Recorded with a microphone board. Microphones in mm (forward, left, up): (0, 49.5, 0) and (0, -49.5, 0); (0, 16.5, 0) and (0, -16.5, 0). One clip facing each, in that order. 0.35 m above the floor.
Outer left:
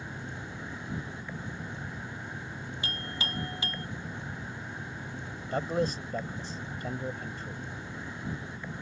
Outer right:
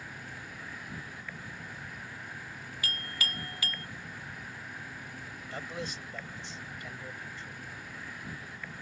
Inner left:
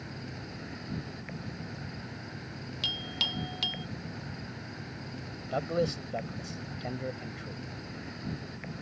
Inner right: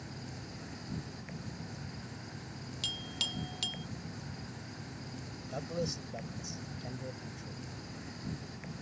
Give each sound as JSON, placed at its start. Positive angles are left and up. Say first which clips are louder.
{"t": 0.0, "sound": "an insect", "louder": "outer left 4 dB, inner left 4 dB", "side_deg": 25}
{"t": 2.8, "sound": "a clink", "louder": "even, inner left 5 dB", "side_deg": 25}
{"t": 5.5, "sound": "a man speaking", "louder": "outer left 11 dB, inner left 8 dB", "side_deg": 40}